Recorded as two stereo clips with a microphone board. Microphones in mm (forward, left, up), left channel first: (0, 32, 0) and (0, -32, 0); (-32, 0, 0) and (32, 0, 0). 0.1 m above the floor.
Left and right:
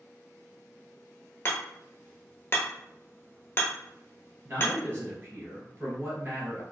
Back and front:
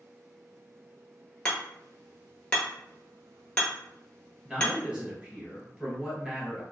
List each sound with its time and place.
1.4 s hammering: 115° left, 0.9 m
4.5 s a man speaking: 65° right, 1.4 m